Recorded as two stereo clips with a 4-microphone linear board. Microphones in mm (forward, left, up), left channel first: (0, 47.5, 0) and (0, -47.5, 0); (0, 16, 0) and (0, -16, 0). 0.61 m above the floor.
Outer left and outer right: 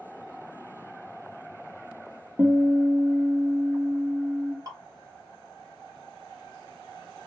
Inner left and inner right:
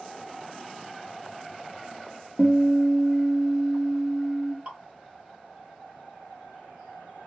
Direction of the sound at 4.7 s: 40° right (ahead or behind).